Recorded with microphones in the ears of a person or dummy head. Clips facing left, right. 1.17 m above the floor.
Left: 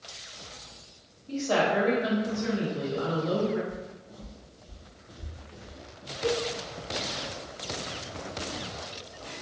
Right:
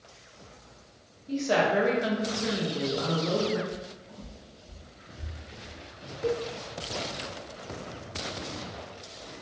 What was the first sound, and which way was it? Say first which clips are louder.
A woman speaking: right 1 dB; 20° right (ahead or behind).